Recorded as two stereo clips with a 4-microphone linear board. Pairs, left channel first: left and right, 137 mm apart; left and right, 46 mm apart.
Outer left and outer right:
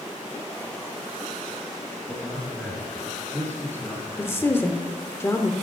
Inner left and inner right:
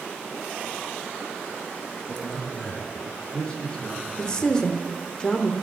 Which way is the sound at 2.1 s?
Centre (ahead or behind).